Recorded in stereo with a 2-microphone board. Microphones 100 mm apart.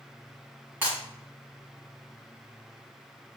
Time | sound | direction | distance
0.8 | breaking glass | 15° right (ahead or behind) | 3.5 m